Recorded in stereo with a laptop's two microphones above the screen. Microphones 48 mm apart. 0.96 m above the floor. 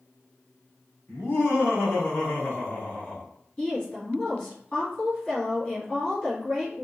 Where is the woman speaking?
25° left (ahead or behind), 1.5 m.